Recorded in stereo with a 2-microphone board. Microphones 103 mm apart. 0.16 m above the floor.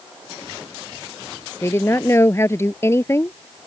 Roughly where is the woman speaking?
Left.